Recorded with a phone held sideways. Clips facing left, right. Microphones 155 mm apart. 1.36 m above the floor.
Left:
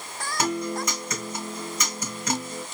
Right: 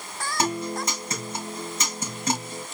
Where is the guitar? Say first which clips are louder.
Even; 30° right (ahead or behind), 3 m.